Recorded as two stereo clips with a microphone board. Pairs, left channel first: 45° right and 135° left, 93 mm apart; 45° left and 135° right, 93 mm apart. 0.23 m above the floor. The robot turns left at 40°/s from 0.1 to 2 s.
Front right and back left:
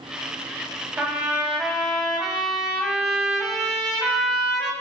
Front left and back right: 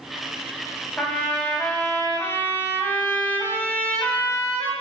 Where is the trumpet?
95° left, 0.5 m; by 4.7 s 55° left, 0.5 m.